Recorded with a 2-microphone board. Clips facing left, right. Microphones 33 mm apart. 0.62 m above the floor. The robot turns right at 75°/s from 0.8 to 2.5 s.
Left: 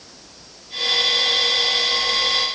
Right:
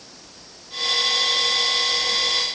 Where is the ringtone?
I don't hear a ringtone.